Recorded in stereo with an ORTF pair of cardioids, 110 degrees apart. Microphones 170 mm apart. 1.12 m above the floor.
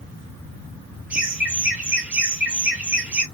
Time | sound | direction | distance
1.1 | laughter | 10° right | 0.6 m